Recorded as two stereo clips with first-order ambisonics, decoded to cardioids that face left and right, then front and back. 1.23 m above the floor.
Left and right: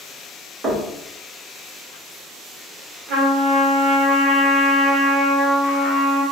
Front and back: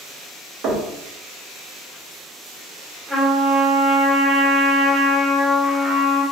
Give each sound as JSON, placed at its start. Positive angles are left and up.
{"t": 0.6, "sound": "knocking", "azimuth_deg": -150, "distance_m": 0.6}
{"t": 3.1, "sound": "a trumpet", "azimuth_deg": -95, "distance_m": 0.9}